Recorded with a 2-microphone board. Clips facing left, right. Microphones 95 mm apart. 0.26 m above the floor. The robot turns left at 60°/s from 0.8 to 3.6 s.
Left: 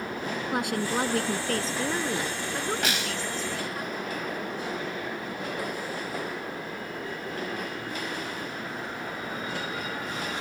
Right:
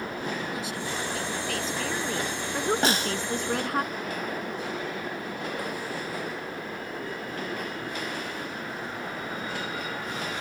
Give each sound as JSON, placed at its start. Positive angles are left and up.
{"t": 0.5, "sound": "a woman speaking", "azimuth_deg": 90}
{"t": 2.8, "sound": "a snare drum", "side_deg": -35}